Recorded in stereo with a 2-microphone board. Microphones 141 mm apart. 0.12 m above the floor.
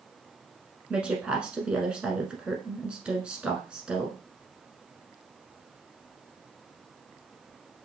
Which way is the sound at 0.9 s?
10° right (ahead or behind).